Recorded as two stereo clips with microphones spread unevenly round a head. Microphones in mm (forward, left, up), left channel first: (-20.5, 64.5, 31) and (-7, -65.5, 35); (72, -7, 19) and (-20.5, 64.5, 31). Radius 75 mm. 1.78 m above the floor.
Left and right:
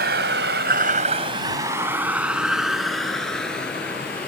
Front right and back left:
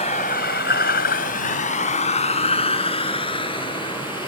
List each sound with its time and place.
0.0 s a vehicle: 95° right; by 4.3 s 15° left